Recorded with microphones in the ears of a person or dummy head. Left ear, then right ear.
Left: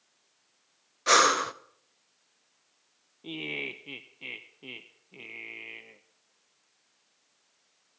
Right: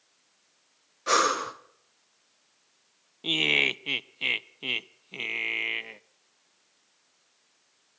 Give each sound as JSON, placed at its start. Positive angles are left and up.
{"t": 1.1, "sound": "breathing", "side_deg": 25, "distance_m": 0.6}
{"t": 3.2, "sound": "laughter", "side_deg": -55, "distance_m": 0.5}